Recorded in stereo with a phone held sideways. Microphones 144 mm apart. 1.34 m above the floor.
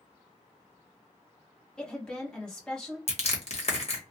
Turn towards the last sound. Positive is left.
turn(degrees=50)  # may be behind; listen again after turning